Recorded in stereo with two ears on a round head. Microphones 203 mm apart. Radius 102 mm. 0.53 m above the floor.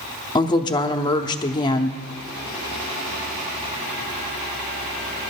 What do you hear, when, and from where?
0.3 s a woman speaking: 20° left (ahead or behind), 0.7 m